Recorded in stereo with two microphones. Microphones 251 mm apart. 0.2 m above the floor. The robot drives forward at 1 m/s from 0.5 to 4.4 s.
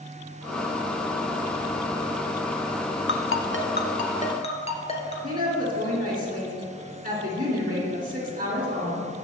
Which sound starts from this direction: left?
A ringtone, at 3.1 s.